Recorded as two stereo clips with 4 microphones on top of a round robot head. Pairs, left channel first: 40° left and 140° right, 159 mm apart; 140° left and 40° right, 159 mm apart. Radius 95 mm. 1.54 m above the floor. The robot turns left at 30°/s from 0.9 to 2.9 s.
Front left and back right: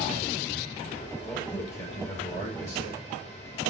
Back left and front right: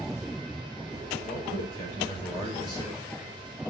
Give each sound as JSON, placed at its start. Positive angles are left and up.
{"t": 1.2, "sound": "a man speaking", "azimuth_deg": 120, "distance_m": 4.5}